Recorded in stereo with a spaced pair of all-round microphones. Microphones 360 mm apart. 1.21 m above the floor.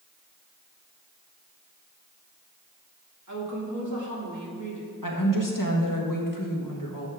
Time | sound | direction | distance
3.3 | a woman speaking | 50° right (ahead or behind) | 2 m
5.0 | a woman speaking | 60° left (ahead or behind) | 1.5 m